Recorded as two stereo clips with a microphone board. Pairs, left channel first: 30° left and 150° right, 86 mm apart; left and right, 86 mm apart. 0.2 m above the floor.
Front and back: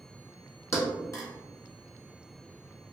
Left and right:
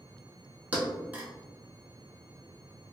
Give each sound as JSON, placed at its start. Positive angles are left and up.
{"t": 0.7, "sound": "a thud", "azimuth_deg": -20, "distance_m": 0.7}